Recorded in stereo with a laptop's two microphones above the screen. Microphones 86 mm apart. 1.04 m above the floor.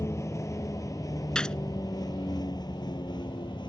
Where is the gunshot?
10° left (ahead or behind).